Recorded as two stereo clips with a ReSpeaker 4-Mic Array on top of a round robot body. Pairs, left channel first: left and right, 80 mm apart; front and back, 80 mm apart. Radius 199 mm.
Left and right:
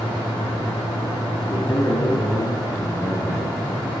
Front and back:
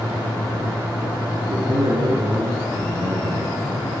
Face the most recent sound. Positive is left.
turn(degrees=150)